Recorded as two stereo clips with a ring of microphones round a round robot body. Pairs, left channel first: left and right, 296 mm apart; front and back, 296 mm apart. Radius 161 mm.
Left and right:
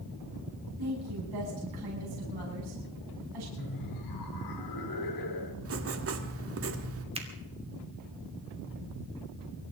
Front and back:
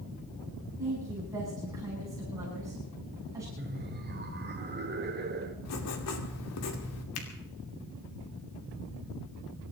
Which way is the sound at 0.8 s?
100° right.